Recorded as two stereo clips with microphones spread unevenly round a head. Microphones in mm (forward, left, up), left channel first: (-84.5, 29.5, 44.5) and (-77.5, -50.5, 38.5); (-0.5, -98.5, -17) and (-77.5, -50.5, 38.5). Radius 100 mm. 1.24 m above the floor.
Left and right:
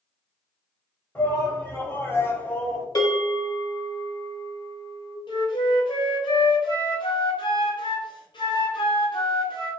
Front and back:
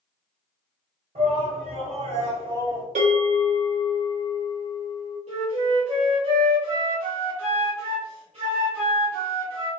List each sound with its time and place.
1.1 s a shout: 165° left, 1.7 m; by 2.9 s 10° left, 0.6 m
3.0 s a bell: 135° left, 1.2 m
5.3 s a flute: 120° left, 0.7 m